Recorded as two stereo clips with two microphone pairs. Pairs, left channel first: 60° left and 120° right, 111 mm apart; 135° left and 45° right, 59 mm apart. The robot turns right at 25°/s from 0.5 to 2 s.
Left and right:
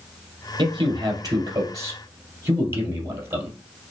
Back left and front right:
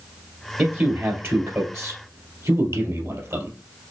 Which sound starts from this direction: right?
A man speaking, at 0.6 s.